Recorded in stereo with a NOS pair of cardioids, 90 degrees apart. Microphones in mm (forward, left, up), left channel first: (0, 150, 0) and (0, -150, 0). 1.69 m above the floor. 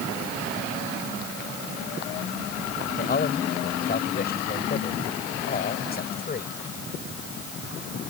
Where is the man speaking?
30° left.